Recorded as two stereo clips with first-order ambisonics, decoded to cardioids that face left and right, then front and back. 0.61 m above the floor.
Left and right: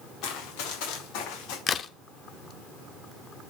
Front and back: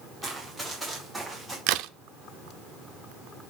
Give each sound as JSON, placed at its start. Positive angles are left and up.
{"t": 0.2, "sound": "running footsteps", "azimuth_deg": 90, "distance_m": 5.0}
{"t": 1.7, "sound": "a crack", "azimuth_deg": 155, "distance_m": 0.7}